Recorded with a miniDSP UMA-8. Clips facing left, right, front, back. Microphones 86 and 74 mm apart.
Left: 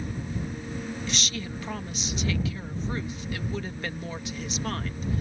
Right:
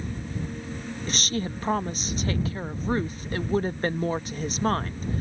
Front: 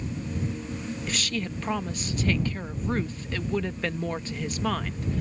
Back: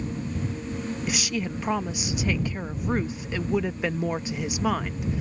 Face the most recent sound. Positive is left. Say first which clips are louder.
# right 4 dB, back 1 dB
turn(degrees=-105)